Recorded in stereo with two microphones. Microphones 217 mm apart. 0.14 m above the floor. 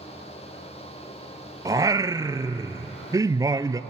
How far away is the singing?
About 0.6 m.